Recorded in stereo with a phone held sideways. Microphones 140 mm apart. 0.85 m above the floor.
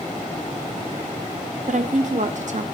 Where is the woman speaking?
60° right (ahead or behind), 1.0 m.